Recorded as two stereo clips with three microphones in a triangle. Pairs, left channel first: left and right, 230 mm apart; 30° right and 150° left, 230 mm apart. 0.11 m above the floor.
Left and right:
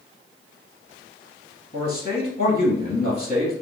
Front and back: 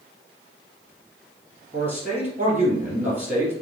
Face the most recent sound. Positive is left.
turn(degrees=80)